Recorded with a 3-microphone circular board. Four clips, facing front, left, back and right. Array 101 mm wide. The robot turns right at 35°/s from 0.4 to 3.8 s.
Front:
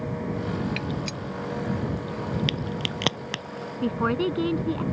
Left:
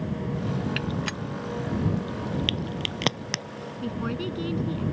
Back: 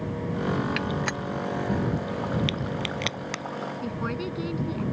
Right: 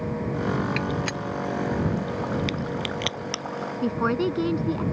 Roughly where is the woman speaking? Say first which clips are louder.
Right 7 dB, front 10 dB; ahead right.